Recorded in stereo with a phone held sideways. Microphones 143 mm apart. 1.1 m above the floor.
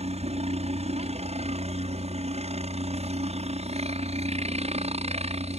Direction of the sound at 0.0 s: 50° right (ahead or behind).